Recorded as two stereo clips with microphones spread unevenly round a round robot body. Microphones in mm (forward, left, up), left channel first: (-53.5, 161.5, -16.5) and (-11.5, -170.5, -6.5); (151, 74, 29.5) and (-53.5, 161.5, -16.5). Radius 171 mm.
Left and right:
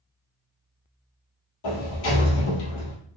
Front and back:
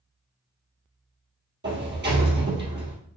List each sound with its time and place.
1.6 s a sliding door: 115° left, 1.8 m